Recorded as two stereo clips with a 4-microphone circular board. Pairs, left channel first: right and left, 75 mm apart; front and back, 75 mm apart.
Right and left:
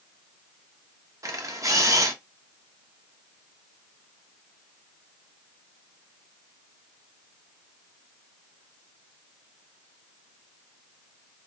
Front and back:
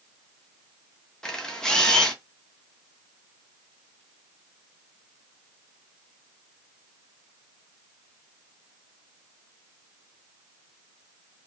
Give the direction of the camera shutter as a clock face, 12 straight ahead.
9 o'clock.